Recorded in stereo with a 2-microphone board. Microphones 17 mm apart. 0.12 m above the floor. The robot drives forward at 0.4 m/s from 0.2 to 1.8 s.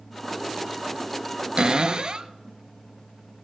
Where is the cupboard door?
55° right (ahead or behind), 0.6 m.